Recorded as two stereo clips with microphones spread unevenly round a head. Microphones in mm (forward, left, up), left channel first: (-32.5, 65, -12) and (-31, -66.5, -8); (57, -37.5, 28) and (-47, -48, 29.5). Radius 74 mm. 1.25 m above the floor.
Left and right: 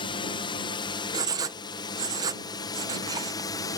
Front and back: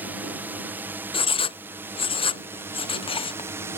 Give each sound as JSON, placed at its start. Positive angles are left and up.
{"t": 0.0, "sound": "a drone", "azimuth_deg": 120}
{"t": 1.1, "sound": "writing", "azimuth_deg": -20}